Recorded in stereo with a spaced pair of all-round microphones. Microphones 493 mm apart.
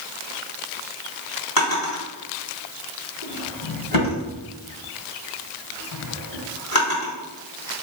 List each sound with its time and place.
1.6 s a drawer: 45° left (ahead or behind), 1.5 m